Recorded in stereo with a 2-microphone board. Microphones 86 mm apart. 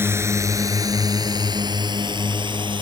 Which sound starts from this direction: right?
A drone, at 0.0 s.